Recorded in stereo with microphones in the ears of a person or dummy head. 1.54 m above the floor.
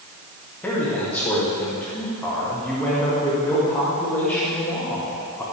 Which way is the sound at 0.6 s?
10° left (ahead or behind).